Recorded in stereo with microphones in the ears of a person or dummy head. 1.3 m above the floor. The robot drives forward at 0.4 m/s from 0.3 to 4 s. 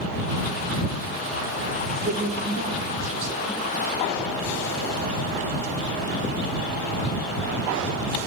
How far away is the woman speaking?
About 3.5 m.